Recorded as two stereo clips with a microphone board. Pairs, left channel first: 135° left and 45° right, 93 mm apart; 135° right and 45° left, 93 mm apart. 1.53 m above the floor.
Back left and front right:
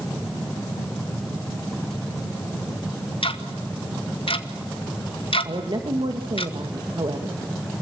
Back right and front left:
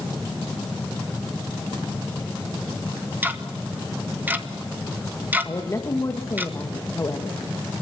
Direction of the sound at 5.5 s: 80° right.